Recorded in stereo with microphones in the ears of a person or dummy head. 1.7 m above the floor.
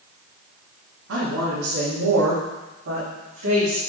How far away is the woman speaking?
About 2.5 m.